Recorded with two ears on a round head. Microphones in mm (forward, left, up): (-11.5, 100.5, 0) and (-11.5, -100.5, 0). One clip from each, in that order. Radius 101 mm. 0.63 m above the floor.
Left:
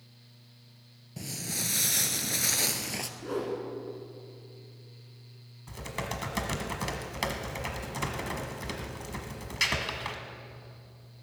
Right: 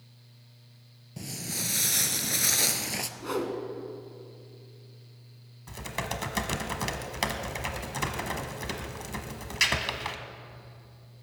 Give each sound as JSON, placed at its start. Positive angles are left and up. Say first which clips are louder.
{"t": 1.2, "sound": "footsteps", "louder": "even", "side_deg": 5, "distance_m": 0.7}
{"t": 3.2, "sound": "a whoosh", "louder": "right 1 dB", "side_deg": -50, "distance_m": 1.7}
{"t": 5.7, "sound": "typing on a keyboard", "louder": "right 2 dB", "side_deg": -15, "distance_m": 1.2}